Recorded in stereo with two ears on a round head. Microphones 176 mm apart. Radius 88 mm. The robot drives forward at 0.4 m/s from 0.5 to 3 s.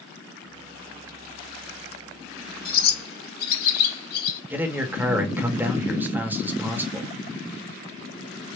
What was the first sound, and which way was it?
A bird, 45° left (ahead or behind).